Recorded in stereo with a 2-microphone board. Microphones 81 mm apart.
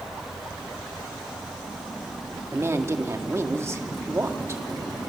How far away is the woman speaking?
About 1.7 m.